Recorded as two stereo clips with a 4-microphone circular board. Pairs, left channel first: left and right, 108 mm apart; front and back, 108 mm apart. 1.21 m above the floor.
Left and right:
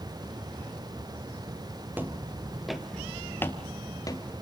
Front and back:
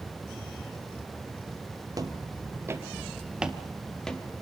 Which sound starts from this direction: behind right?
Footsteps, at 1.9 s.